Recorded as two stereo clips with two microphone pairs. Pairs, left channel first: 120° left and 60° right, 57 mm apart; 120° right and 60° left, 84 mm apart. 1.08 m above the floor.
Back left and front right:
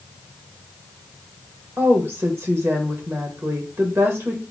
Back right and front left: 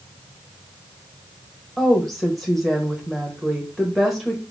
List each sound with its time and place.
1.8 s a woman speaking: 30° right, 1.0 m